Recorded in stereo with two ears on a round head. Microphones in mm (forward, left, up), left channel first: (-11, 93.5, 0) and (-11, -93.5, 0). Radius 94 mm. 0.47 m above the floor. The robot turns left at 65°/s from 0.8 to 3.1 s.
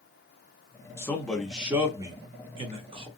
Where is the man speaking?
15° left (ahead or behind), 0.7 m; by 3.1 s 25° right (ahead or behind), 0.7 m.